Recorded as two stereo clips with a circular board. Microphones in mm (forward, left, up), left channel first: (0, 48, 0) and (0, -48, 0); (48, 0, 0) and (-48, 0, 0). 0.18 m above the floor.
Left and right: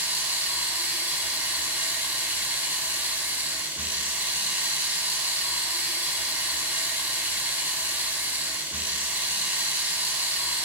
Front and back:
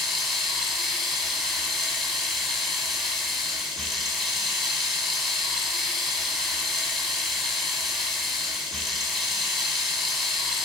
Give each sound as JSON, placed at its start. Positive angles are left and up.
{"t": 0.0, "sound": "running water", "azimuth_deg": -85, "distance_m": 1.2}